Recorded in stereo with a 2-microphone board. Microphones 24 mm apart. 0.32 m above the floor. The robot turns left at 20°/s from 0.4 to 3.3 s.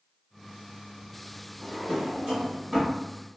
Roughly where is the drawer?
Right.